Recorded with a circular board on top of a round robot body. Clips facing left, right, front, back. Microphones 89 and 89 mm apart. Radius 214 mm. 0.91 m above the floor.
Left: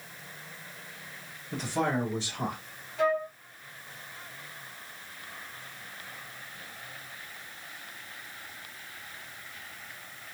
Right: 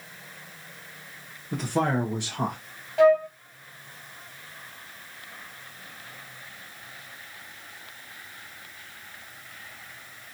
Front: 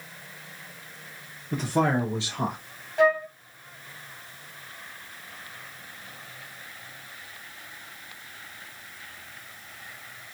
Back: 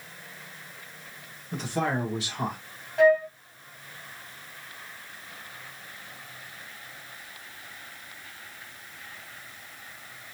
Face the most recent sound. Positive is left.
turn(degrees=-85)